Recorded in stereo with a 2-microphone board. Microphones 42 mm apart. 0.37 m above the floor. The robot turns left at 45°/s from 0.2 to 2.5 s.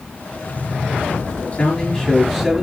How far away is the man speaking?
About 5.5 m.